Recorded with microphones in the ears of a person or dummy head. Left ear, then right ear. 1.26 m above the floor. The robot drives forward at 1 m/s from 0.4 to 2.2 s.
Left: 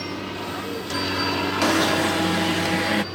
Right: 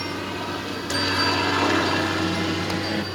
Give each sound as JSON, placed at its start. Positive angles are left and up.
{"t": 0.0, "sound": "a helicopter", "side_deg": -15}
{"t": 1.6, "sound": "an alarm", "side_deg": 60}